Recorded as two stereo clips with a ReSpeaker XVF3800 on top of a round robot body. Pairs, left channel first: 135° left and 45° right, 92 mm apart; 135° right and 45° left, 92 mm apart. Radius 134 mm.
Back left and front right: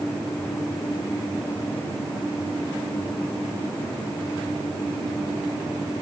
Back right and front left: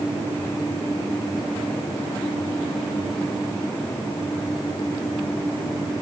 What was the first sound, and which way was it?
Only background noise.